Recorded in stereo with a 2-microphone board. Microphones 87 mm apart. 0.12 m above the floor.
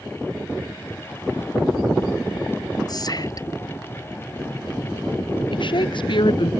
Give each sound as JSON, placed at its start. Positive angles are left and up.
{"t": 2.9, "sound": "whispering", "side_deg": 50}
{"t": 5.5, "sound": "a woman speaking", "side_deg": 65}